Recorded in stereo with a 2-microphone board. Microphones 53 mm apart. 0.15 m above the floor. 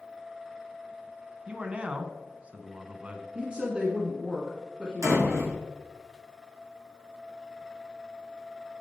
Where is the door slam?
75° right (ahead or behind), 4 m.